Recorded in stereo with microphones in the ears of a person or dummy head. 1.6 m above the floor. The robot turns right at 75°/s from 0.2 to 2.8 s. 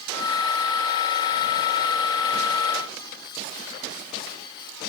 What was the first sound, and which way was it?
Only background noise.